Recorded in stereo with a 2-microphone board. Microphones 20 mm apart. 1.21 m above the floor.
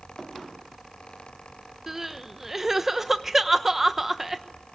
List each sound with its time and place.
1.9 s crying: 20° right (ahead or behind), 1.0 m